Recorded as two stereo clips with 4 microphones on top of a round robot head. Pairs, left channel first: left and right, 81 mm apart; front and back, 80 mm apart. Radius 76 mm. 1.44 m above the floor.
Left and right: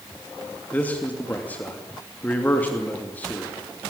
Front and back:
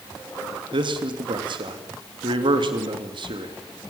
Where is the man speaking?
165° left, 3 m.